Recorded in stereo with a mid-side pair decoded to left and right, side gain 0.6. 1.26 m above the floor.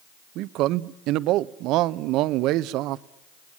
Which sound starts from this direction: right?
A man speaking, at 0.3 s.